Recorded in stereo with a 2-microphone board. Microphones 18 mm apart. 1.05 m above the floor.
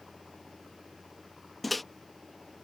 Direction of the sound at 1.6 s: 5° left (ahead or behind).